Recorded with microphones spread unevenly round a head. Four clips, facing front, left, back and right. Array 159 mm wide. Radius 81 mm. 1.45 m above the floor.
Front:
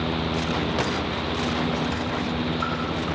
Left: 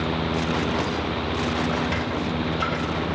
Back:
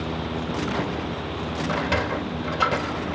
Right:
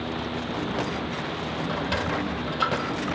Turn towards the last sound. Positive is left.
turn(degrees=-165)